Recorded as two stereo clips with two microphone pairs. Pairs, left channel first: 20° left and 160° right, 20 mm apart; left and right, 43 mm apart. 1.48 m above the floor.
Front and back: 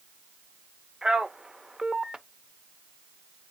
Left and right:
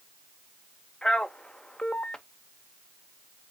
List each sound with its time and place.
1.0 s a man speaking: 150° left, 0.7 m